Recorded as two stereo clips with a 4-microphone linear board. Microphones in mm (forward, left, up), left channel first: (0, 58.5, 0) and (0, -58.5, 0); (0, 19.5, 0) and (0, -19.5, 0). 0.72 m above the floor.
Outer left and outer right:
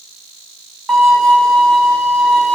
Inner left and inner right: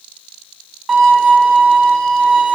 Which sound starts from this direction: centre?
A violin, at 0.9 s.